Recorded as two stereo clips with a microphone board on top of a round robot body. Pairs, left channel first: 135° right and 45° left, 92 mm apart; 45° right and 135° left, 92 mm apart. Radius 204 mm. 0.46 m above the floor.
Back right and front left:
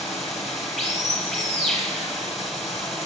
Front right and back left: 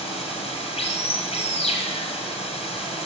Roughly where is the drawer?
I don't hear a drawer.